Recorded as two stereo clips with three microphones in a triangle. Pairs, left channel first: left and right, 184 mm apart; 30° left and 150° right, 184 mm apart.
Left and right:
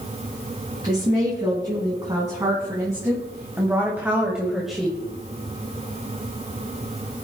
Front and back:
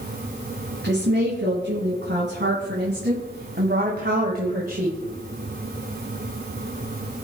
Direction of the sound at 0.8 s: 155° right.